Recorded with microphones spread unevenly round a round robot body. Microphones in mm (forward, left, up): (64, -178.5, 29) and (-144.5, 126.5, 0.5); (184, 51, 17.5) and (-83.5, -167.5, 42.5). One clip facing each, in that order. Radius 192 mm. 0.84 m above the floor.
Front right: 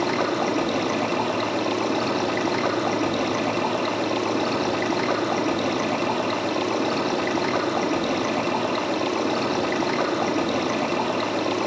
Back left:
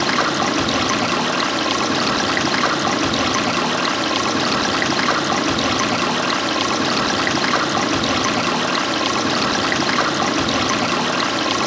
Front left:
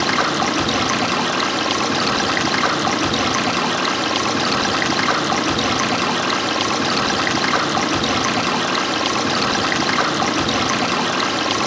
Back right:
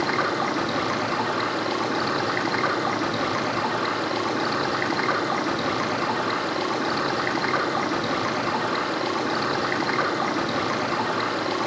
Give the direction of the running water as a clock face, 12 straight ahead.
10 o'clock.